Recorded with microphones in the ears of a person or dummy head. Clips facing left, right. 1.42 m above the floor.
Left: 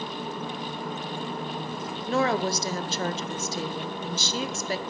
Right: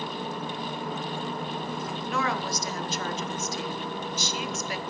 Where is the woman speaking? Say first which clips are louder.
Left 7 dB; 35° left (ahead or behind), 0.8 m.